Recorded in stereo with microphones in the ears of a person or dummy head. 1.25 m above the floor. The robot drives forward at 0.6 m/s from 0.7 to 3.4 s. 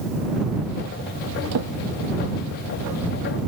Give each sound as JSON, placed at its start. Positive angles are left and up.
{"t": 1.5, "sound": "a drawer", "side_deg": -85}